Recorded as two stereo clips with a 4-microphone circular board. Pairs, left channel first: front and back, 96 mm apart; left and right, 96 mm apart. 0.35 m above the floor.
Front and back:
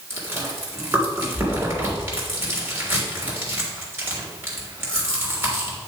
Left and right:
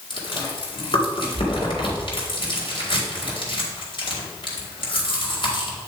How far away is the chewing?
About 3 m.